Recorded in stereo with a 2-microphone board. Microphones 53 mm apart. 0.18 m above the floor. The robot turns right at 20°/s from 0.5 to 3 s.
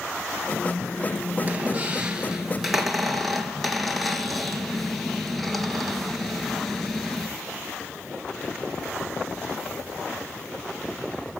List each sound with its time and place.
1.4 s a squeak: 25° right (ahead or behind), 1.3 m; by 7.3 s 5° left (ahead or behind), 1.3 m